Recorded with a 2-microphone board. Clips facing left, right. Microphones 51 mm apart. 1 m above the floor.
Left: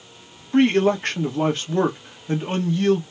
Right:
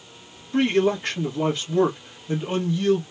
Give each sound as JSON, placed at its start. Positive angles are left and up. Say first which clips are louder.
{"t": 0.5, "sound": "a man speaking", "louder": "left 3 dB", "side_deg": 55, "distance_m": 1.4}